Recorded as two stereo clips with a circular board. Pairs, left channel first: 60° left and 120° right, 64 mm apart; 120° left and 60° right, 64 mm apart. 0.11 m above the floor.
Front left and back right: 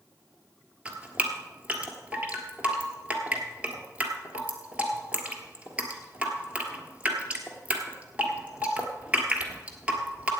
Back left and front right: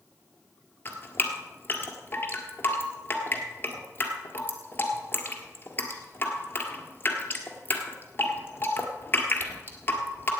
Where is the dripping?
175° left, 1.7 m.